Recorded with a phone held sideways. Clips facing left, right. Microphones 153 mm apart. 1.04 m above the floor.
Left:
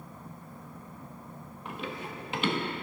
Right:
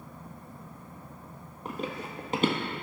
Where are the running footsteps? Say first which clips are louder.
Right 3 dB; 40° right (ahead or behind), 1.5 m.